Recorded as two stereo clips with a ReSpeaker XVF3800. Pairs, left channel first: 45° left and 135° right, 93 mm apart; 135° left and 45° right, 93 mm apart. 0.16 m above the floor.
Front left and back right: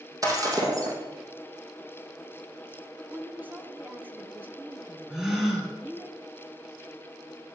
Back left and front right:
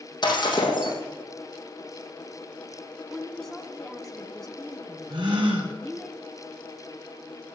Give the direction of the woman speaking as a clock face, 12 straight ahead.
5 o'clock.